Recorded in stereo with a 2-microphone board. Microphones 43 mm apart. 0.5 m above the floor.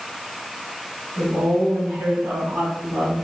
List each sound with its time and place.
1.2 s a woman speaking: 75° right (ahead or behind), 3 m; by 3.3 s 80° right, 4 m